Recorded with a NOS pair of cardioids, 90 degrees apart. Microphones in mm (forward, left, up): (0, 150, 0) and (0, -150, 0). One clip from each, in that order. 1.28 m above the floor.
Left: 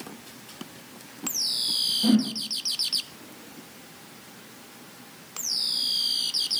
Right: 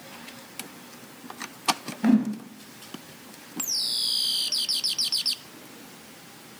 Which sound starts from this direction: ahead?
A whoosh, at 2.0 s.